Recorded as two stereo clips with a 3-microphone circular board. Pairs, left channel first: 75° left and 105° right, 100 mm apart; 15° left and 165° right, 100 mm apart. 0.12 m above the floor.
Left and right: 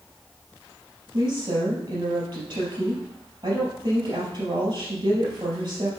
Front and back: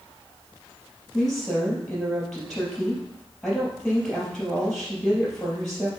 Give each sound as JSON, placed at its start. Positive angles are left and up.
{"t": 1.1, "sound": "a woman speaking", "azimuth_deg": -70, "distance_m": 3.5}